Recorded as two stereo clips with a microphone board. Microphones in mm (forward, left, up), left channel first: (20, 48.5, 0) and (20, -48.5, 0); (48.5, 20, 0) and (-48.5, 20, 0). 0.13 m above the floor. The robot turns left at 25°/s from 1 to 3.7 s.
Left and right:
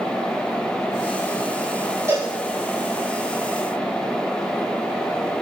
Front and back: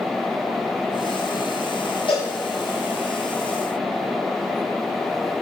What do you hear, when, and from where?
2.1 s a cowbell: 30° right, 7 m; by 2.3 s 35° right, 7 m